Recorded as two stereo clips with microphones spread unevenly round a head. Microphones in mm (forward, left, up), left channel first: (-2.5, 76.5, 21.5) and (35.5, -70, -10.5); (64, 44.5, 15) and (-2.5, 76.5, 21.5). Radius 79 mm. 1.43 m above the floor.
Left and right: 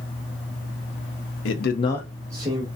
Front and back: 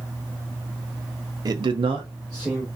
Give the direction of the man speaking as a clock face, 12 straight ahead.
8 o'clock.